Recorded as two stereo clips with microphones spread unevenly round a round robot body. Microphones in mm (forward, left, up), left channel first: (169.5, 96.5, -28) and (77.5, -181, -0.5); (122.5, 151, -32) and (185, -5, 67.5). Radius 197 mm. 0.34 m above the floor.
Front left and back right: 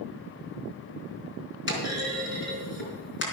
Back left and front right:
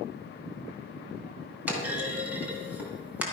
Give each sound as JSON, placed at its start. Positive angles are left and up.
{"t": 1.7, "sound": "a clunk", "azimuth_deg": 25, "distance_m": 3.5}